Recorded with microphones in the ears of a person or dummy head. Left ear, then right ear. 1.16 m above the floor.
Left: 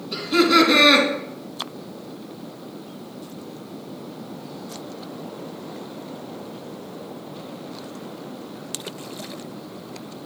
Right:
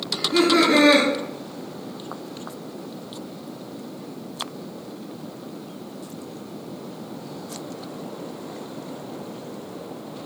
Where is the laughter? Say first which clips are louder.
Left 2 dB; 40° left (ahead or behind), 2.5 m.